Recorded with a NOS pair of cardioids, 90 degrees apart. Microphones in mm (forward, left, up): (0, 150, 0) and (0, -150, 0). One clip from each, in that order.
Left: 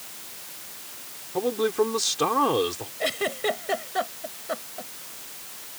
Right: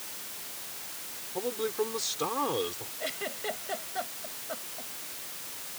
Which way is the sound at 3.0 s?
60° left.